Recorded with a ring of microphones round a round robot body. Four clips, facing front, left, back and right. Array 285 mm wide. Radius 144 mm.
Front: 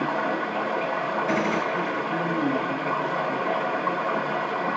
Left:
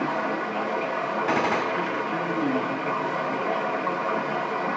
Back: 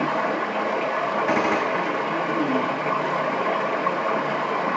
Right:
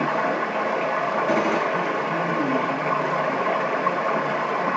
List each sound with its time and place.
0.0 s running water: 130° right, 1.1 m
1.3 s a gunshot: 145° left, 2 m